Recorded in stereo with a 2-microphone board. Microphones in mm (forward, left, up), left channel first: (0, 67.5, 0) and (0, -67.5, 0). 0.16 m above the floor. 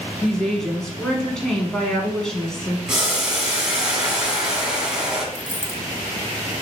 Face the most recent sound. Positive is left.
turn(degrees=5)  # may be behind; listen again after turning